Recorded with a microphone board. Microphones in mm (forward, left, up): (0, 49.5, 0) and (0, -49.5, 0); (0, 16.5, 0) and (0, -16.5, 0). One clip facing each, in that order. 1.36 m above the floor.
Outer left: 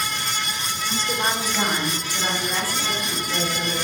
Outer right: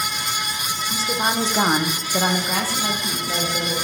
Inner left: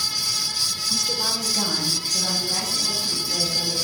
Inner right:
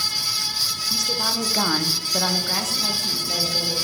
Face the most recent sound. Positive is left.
turn(degrees=-55)  # may be behind; listen again after turning